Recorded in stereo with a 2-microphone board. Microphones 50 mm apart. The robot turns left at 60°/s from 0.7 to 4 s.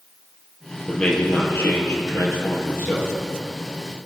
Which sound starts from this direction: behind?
A man speaking, at 0.9 s.